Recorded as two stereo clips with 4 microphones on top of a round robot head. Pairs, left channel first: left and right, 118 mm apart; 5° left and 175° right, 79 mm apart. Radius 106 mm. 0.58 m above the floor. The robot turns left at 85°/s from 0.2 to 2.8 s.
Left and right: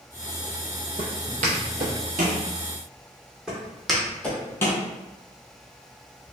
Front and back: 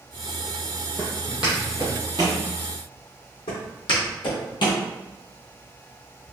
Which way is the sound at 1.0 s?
80° right.